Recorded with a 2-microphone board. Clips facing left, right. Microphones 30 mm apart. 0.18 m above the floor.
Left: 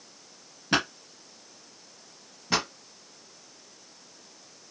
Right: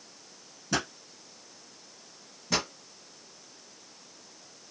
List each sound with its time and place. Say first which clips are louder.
0.7 s a pop: left 5 dB; 50° left (ahead or behind), 0.5 m
2.5 s a pop: left 2 dB; 30° left (ahead or behind), 1.6 m